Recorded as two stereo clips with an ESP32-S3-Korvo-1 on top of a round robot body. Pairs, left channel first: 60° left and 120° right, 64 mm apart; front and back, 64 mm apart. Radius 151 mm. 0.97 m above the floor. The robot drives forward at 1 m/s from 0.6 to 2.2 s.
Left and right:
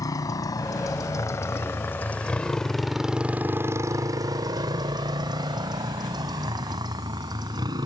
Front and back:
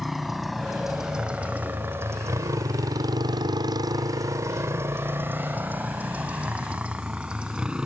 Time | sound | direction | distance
0.0 | a motorcycle | 90° left | ?